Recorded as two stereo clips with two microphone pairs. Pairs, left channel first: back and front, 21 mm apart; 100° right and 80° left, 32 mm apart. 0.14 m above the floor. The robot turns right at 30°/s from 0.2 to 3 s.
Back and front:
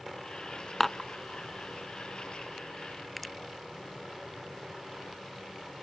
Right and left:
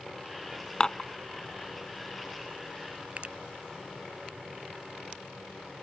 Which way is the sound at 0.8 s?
120° right.